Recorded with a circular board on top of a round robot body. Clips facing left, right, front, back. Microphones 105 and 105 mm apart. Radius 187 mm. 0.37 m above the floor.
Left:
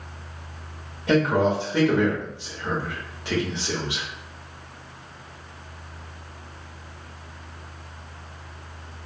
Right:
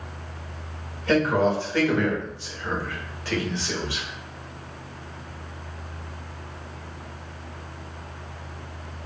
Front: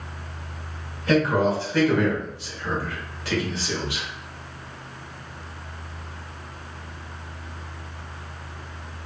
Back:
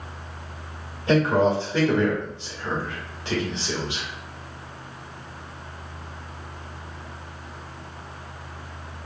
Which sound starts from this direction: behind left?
A man speaking, at 1.1 s.